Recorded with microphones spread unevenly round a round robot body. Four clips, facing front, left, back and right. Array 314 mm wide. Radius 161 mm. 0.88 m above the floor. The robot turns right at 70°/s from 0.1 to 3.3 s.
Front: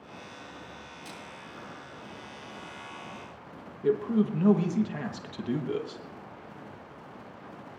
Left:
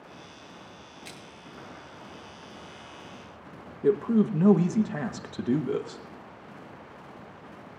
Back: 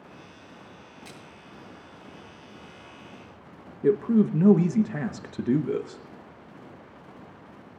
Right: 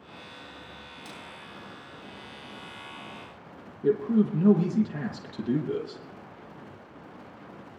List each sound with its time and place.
1.1 s a splash: 140° right, 4 m; by 1.2 s 130° right, 4 m
3.8 s a man speaking: 170° left, 0.9 m